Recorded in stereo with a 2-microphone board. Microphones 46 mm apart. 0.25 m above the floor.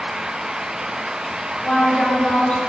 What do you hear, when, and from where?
1.6 s a woman speaking: 25° left (ahead or behind), 1.5 m